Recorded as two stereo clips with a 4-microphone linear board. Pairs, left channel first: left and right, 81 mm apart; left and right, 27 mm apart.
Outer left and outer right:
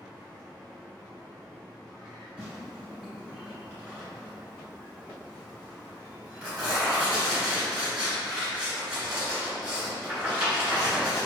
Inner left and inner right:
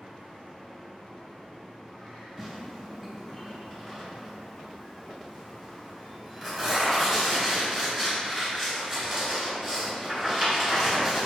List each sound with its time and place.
2.4 s tearing paper: 10° right (ahead or behind), 1.9 m